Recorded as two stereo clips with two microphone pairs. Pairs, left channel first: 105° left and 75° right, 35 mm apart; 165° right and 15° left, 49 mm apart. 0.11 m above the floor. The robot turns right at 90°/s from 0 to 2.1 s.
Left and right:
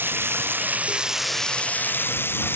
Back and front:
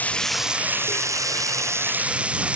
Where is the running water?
105° right; by 2.6 s 85° left.